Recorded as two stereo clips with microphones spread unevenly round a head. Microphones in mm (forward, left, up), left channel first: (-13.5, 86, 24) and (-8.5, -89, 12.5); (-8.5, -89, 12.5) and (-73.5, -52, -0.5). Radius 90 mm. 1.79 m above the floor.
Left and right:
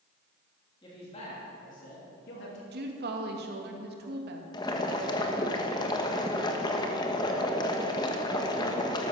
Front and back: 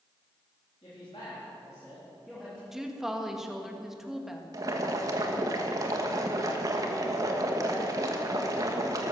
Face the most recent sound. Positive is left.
turn(degrees=135)